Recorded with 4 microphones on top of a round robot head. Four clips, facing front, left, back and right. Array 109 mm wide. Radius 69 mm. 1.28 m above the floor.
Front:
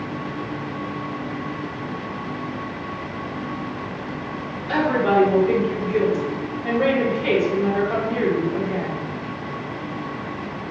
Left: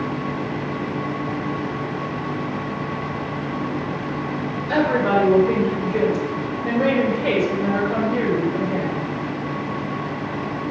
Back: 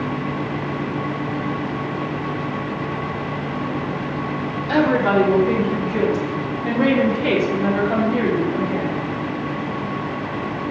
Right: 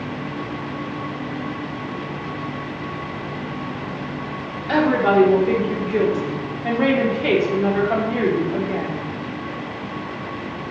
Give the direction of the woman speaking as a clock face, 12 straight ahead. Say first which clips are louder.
Right 2 dB, back 2 dB; 4 o'clock.